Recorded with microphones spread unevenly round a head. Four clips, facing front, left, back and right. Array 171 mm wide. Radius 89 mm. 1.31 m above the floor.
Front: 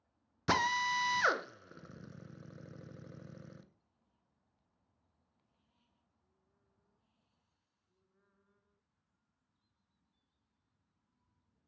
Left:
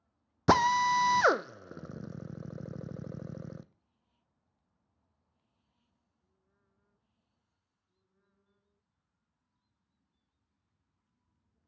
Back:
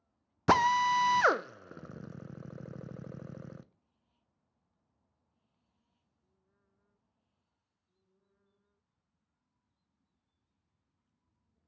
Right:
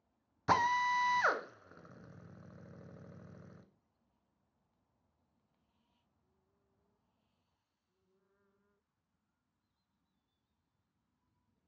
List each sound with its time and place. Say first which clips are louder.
0.5 s a drill: left 6 dB, back 7 dB; 105° left, 0.5 m